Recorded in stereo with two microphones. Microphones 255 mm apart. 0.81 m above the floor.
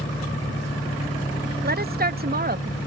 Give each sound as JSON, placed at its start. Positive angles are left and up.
{"t": 0.0, "sound": "an engine running", "side_deg": 30}
{"t": 1.6, "sound": "a woman speaking", "side_deg": -40}